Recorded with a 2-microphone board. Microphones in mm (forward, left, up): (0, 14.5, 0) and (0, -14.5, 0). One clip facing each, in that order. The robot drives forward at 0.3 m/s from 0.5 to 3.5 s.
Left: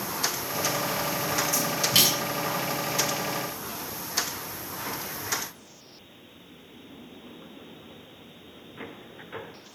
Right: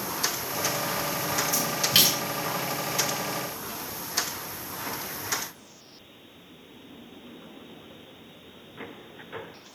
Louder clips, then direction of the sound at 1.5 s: Right 1 dB; 15° right (ahead or behind).